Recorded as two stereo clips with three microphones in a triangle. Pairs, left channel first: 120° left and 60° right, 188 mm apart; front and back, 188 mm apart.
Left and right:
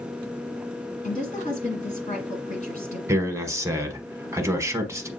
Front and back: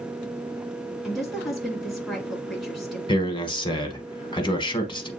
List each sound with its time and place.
1.0 s a woman speaking: 90° left, 2 m
3.1 s a man speaking: 5° right, 1.0 m